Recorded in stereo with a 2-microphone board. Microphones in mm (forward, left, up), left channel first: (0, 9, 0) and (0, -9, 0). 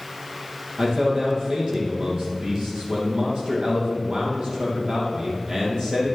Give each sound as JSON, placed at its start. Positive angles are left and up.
{"t": 0.8, "sound": "a man speaking", "side_deg": -50, "distance_m": 4.0}